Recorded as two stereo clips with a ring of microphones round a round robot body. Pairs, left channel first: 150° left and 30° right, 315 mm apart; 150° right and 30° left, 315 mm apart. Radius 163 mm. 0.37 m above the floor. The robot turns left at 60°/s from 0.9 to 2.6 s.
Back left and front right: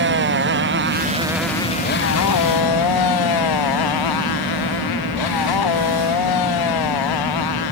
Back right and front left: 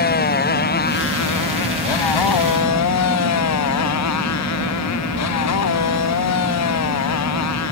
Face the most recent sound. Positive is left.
turn(degrees=170)